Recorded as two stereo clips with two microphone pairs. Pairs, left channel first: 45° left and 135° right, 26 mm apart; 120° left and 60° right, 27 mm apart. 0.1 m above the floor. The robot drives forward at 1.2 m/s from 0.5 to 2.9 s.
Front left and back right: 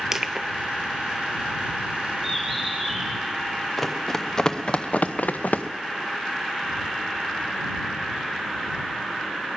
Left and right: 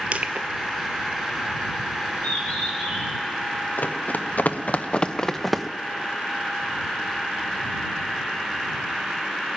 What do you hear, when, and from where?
0.1 s crushing: 65° right, 0.6 m
2.2 s a bird: 135° left, 3.5 m; by 3.1 s 145° left, 4.5 m
3.8 s running footsteps: 130° left, 1.5 m; by 5.7 s 30° left, 1.0 m